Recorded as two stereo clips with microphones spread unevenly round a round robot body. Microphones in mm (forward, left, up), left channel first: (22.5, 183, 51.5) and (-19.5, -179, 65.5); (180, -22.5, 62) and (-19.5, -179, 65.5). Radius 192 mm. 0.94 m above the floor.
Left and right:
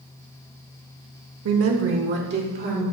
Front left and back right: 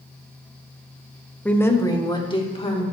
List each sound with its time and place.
1.4 s a woman speaking: 45° right, 1.3 m; by 2.8 s 30° right, 3 m